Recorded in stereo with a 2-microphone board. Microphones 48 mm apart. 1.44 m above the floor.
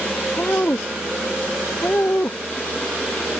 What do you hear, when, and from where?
0.4 s a woman speaking: 45° left (ahead or behind)